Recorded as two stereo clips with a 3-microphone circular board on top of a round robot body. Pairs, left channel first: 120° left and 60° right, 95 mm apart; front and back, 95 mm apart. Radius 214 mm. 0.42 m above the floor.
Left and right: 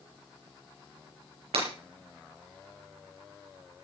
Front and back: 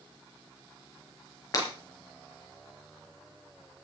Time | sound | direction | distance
1.5 | breaking glass | 50° right | 5.5 m